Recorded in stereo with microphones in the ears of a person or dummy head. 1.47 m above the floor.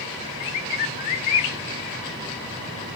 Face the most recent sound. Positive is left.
turn(degrees=35)  # may be behind; listen again after turning